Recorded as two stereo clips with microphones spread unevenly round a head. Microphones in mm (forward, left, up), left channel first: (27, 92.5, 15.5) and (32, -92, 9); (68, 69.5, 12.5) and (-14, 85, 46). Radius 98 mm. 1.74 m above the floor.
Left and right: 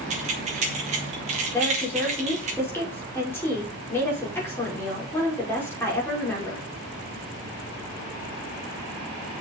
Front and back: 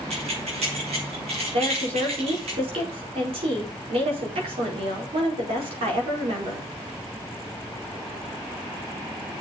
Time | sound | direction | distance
0.1 | keys jangling | 150° right | 3.5 m
1.5 | a woman speaking | 170° left | 5 m